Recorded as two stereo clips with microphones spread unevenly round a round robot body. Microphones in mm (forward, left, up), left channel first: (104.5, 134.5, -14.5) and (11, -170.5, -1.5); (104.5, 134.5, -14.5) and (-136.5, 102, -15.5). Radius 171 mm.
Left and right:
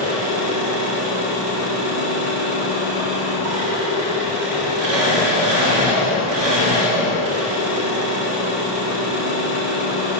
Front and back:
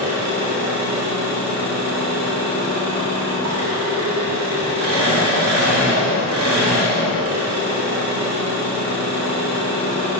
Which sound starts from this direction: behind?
An engine running, at 0.0 s.